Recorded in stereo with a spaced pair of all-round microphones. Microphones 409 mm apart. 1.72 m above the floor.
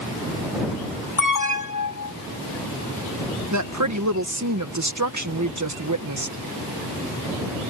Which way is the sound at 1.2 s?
45° left (ahead or behind).